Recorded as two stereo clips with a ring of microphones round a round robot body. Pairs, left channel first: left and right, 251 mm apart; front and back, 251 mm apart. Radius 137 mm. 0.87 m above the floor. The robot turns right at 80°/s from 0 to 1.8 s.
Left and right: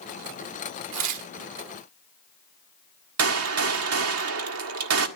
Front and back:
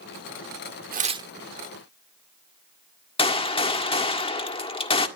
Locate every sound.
0.9 s tearing paper: 130° right, 1.1 m; by 1.3 s 100° right, 1.1 m
3.2 s a gunshot: 70° right, 1.7 m